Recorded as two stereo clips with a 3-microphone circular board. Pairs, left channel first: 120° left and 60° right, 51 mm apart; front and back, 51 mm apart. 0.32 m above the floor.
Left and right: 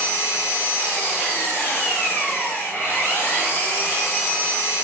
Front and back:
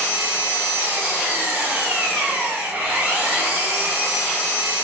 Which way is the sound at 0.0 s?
150° left.